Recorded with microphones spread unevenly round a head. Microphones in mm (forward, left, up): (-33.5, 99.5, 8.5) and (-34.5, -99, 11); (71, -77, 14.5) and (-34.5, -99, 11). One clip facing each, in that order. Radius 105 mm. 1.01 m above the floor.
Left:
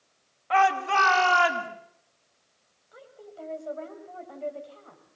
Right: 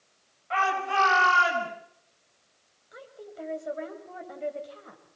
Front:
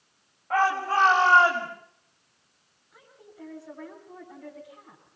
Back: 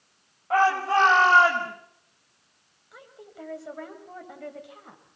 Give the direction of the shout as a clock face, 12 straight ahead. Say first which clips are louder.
Left 5 dB, back 3 dB; 8 o'clock.